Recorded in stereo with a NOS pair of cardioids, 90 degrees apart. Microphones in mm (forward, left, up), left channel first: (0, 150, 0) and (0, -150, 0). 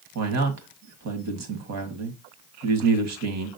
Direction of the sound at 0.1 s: 60° right.